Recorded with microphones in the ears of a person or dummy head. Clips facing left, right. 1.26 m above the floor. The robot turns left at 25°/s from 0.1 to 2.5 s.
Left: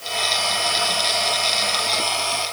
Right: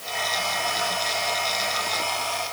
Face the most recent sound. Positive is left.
No sound to turn to.